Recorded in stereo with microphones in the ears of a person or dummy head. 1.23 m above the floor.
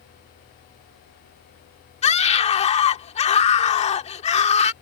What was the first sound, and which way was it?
A scream, 35° left (ahead or behind).